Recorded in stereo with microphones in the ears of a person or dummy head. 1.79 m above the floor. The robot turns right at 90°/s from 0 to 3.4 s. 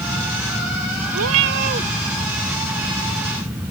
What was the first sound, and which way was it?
A cat meowing, 95° right.